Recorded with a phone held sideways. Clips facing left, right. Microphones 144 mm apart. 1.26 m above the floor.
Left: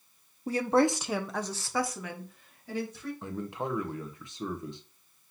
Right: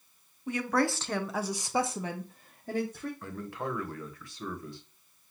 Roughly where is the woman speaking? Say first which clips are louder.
Left 4 dB; left.